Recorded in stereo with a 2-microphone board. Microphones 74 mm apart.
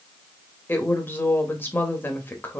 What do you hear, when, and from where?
0.7 s a woman speaking: 30° left (ahead or behind), 1.1 m